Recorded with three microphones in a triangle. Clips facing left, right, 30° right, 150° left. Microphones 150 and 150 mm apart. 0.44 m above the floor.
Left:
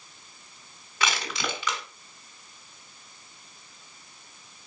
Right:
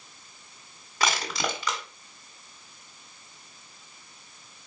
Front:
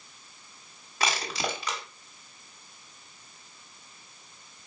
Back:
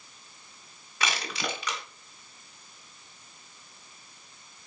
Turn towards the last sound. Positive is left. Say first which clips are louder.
# right 2 dB, front 3 dB
turn(degrees=-65)